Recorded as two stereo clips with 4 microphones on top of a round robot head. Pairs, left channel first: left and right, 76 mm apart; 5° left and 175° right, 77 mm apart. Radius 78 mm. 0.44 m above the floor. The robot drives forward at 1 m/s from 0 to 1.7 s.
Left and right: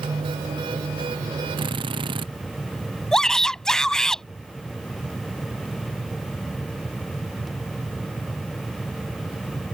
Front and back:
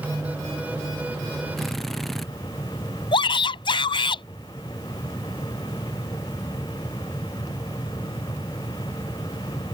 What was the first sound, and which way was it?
A drill, 80° right.